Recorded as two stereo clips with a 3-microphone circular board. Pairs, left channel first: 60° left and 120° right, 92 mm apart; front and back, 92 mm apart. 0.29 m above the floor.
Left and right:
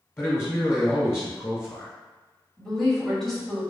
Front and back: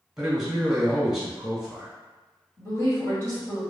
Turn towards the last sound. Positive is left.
turn(degrees=-25)